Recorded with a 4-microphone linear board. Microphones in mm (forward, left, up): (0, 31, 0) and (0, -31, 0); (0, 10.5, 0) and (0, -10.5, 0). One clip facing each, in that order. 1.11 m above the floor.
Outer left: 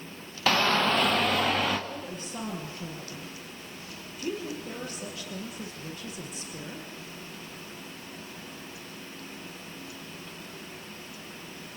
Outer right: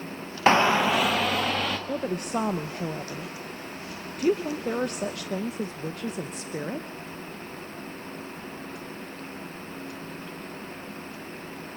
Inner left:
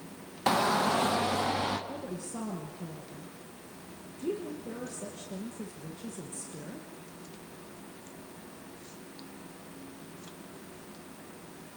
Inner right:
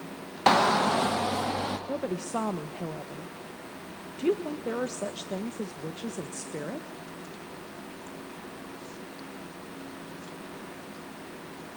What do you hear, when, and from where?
0.5 s a shout: 30° right (ahead or behind), 0.6 m; by 1.8 s centre (ahead or behind), 1.7 m
1.9 s a woman speaking: 60° right (ahead or behind), 1.2 m